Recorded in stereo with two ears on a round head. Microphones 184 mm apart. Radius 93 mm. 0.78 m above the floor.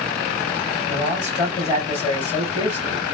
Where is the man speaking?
20° left (ahead or behind), 4 m.